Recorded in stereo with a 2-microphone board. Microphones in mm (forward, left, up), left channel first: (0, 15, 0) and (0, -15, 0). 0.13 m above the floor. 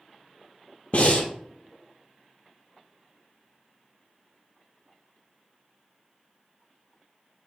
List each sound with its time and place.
0.9 s breathing: 50° left (ahead or behind), 0.7 m